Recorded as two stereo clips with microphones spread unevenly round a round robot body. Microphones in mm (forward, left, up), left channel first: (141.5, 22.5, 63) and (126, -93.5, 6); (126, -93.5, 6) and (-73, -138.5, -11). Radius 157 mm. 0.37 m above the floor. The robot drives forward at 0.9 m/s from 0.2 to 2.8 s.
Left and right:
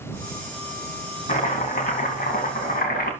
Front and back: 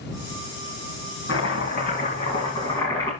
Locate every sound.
1.3 s chopping: 65° left, 3 m; by 3.1 s 95° left, 2.5 m